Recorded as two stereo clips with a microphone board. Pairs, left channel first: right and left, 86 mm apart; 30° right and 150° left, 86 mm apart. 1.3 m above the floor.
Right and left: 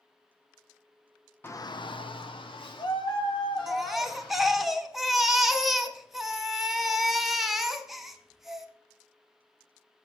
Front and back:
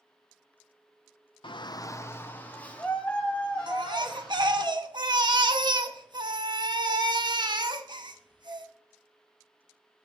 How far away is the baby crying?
About 1.2 m.